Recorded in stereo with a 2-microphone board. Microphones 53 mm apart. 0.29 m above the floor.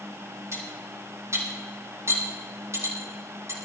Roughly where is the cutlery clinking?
Right.